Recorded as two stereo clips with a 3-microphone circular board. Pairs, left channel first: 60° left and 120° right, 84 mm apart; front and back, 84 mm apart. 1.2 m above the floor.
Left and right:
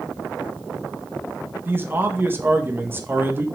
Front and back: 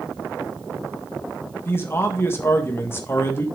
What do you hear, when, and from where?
1.6 s a man speaking: 60° right, 1.6 m